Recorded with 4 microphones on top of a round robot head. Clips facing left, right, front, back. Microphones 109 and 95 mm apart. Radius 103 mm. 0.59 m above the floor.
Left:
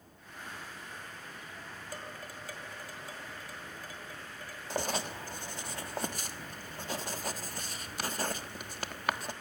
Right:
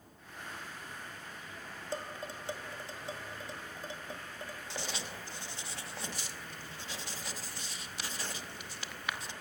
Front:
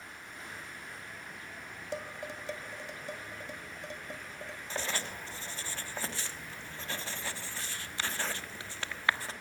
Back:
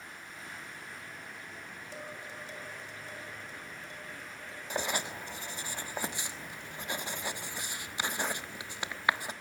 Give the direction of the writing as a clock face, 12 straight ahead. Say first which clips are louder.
Left 10 dB, back 4 dB; 8 o'clock.